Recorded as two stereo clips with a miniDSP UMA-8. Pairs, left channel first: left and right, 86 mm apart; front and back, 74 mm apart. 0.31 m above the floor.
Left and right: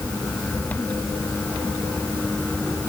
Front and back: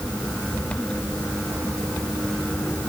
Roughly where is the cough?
I don't hear a cough.